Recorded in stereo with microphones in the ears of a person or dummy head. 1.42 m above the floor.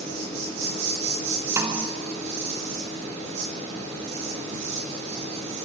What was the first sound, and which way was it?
An insect, 35° right (ahead or behind).